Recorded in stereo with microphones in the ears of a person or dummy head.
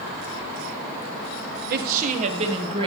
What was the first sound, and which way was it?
A woman speaking, 50° right (ahead or behind).